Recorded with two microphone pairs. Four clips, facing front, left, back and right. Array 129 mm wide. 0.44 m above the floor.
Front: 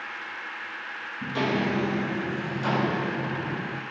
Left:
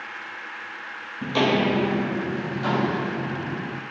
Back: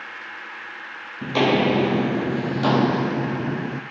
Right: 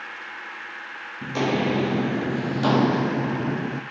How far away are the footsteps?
About 0.8 m.